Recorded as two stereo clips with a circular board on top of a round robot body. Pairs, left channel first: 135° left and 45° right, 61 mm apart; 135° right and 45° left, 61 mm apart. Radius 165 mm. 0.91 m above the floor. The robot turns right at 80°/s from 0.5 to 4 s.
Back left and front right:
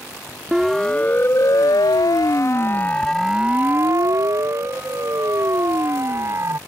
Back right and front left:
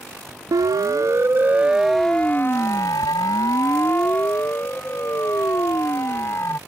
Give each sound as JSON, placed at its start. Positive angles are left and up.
{"t": 0.5, "sound": "a siren", "azimuth_deg": 35}